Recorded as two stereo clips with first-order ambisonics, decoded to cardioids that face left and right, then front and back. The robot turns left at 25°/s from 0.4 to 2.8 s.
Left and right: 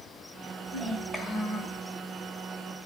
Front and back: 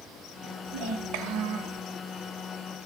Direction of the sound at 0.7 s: 165° right.